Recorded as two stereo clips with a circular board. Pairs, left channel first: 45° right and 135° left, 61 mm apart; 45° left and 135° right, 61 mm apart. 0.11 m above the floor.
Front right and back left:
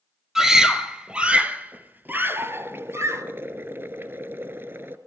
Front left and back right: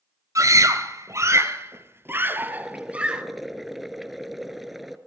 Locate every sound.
0.3 s a scream: 140° right, 2.5 m; by 3.2 s 155° left, 2 m
2.5 s boiling: 140° left, 1.4 m